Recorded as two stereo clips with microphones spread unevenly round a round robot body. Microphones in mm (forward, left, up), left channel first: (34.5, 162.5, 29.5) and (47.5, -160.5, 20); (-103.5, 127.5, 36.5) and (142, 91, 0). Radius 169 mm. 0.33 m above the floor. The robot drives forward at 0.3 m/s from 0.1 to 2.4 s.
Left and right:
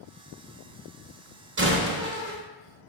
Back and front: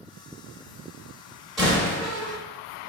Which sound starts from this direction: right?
A door slam, at 1.6 s.